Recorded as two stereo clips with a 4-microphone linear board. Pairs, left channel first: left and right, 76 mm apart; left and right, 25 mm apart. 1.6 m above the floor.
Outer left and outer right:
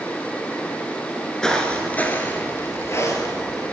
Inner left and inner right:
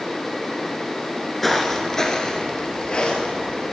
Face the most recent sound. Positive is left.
turn(degrees=45)  # may be behind; listen again after turning